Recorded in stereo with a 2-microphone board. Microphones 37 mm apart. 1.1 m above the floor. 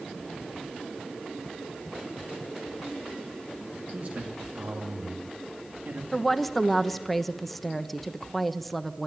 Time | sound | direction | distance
3.9 | a man speaking | 50° right (ahead or behind) | 2.5 m
6.1 | a woman speaking | 5° left (ahead or behind) | 1.0 m